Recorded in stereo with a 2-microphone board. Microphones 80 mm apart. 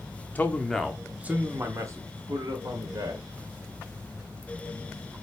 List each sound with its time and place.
0.3 s a man speaking: 20° left (ahead or behind), 0.7 m; by 3.2 s 65° right (ahead or behind), 1.5 m